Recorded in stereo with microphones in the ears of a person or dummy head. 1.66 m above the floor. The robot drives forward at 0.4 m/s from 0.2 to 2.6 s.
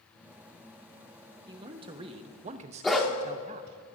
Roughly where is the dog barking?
Centre.